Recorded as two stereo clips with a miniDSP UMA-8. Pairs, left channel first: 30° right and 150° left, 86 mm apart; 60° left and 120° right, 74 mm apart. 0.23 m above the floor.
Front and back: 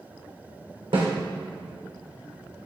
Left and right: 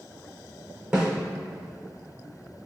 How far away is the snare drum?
About 3 m.